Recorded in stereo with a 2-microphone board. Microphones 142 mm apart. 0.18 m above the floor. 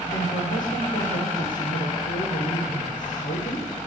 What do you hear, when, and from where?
0.1 s a woman speaking: 70° left (ahead or behind), 8 m